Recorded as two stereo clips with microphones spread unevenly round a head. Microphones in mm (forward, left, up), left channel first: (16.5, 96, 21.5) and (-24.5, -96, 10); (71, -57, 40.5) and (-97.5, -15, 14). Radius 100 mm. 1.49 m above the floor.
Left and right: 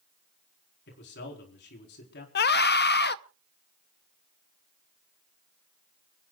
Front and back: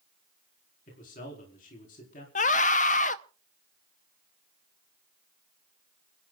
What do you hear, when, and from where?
0.9 s a man speaking: 40° left, 4 m
2.4 s a scream: 40° left, 0.7 m